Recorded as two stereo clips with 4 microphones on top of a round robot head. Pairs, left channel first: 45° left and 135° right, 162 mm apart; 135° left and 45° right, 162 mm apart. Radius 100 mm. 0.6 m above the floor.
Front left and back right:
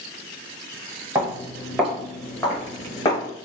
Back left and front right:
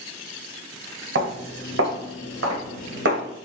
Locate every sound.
1.1 s footsteps: 60° right, 1.9 m; by 3.2 s 20° right, 1.3 m